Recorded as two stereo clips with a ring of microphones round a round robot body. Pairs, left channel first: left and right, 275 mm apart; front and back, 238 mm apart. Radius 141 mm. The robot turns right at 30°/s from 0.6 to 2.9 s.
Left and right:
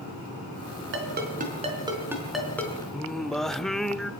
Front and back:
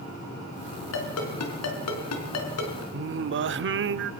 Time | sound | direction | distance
0.9 | a ringtone | 45° right | 4 m
2.9 | singing | straight behind | 0.7 m